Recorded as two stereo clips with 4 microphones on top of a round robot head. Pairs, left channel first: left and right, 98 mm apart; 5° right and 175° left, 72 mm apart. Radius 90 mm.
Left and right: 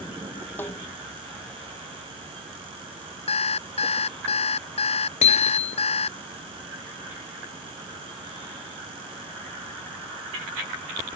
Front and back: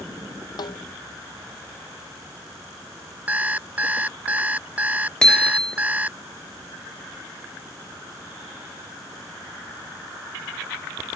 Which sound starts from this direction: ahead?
A snare drum, at 0.6 s.